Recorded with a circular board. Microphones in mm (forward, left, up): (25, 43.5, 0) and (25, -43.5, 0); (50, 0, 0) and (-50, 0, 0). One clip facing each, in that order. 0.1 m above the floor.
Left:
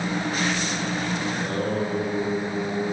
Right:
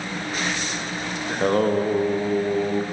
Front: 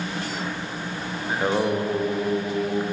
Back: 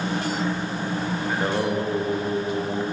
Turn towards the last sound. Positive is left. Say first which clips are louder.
# right 6 dB, front 3 dB
turn(degrees=-80)